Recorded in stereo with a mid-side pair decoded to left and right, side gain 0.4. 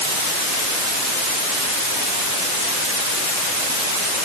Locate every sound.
Only background noise.